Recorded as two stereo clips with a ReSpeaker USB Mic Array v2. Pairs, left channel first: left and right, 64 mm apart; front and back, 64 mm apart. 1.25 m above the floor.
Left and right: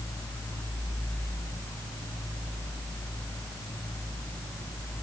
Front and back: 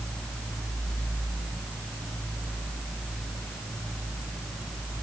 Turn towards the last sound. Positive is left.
No sound to turn to.